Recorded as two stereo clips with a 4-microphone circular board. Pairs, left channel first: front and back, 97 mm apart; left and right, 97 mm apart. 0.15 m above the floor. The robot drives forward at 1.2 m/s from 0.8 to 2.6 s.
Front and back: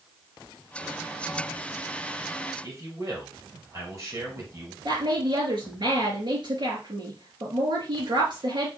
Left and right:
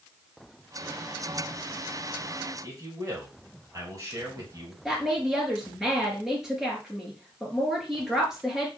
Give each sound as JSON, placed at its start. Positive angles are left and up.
{"t": 2.6, "sound": "a man speaking", "azimuth_deg": -135, "distance_m": 3.0}
{"t": 4.8, "sound": "a woman speaking", "azimuth_deg": -175, "distance_m": 3.0}